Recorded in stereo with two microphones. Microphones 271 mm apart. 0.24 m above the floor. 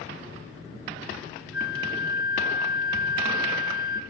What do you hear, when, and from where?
1.5 s a flute: 50° left (ahead or behind), 2 m